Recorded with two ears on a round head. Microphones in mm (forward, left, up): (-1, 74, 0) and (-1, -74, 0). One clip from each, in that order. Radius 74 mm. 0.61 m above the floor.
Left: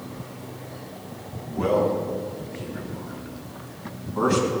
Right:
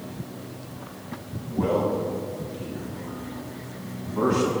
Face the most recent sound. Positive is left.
turn(degrees=80)